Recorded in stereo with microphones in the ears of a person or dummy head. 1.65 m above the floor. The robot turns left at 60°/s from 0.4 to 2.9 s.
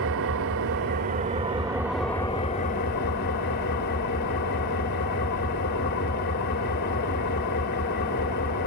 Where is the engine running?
85° right, 2.5 m; by 8.7 s 125° left, 2.5 m.